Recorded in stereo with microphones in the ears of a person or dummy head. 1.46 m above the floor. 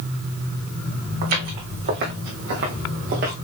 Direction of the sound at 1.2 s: 50° right (ahead or behind).